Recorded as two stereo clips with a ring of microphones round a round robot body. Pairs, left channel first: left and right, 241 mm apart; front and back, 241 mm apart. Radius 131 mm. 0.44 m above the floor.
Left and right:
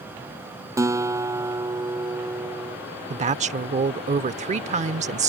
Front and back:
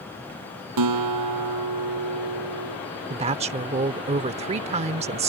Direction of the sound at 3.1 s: 130° right.